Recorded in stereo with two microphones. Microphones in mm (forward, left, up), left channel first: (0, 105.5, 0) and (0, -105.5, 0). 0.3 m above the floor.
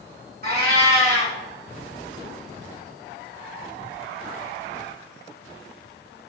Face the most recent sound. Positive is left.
turn(degrees=-50)  # may be behind; listen again after turning